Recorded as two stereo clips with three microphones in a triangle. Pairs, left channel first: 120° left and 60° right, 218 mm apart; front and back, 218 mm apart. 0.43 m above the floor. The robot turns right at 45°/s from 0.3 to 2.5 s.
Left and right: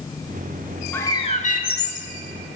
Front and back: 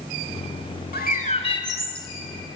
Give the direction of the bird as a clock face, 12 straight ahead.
11 o'clock.